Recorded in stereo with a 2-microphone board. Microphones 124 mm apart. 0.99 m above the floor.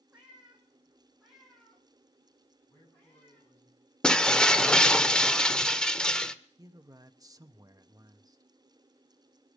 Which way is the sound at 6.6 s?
30° right (ahead or behind).